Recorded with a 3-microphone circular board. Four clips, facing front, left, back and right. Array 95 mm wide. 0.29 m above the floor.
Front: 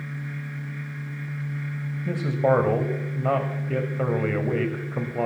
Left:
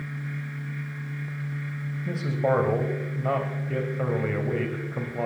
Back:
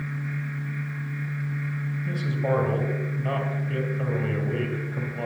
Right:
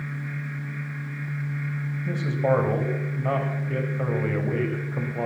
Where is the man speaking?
5° left, 1.8 m.